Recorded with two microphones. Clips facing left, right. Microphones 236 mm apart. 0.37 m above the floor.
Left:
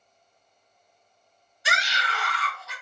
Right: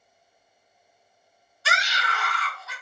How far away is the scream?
About 0.9 m.